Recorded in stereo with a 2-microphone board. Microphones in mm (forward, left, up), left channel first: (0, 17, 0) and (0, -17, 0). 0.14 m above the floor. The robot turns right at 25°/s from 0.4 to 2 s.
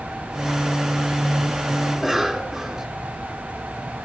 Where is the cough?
Centre (ahead or behind), 1.1 m.